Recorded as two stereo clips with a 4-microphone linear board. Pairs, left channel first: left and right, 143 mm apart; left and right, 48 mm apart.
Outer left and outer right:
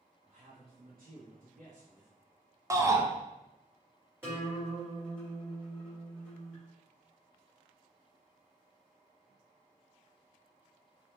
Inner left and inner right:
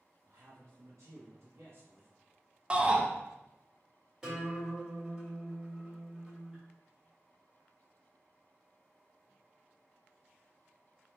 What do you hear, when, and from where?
0.3 s a man speaking: 60° right (ahead or behind), 0.5 m; by 2.1 s 55° right (ahead or behind), 1.2 m
2.7 s a shout: 20° right (ahead or behind), 0.6 m
4.2 s a guitar: 15° right (ahead or behind), 1.4 m